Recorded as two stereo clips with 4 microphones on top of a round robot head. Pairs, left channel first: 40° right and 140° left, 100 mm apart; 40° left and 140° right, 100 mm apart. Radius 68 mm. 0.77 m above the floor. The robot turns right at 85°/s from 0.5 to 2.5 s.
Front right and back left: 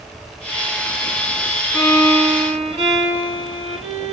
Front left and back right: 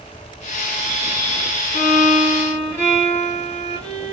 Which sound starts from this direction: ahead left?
A violin, at 1.7 s.